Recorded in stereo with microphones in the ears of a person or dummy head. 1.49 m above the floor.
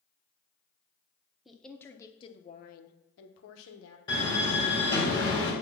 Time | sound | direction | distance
1.4 | a woman speaking | centre (ahead or behind) | 1.0 m
4.1 | a door slam | 25° left (ahead or behind) | 3 m